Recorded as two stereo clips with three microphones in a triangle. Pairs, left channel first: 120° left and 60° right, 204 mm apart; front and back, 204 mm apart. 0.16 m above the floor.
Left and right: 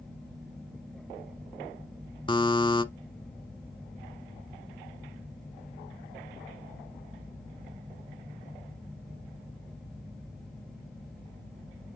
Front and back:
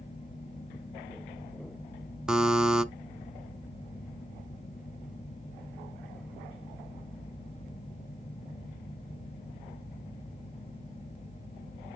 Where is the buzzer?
100° left, 0.7 m.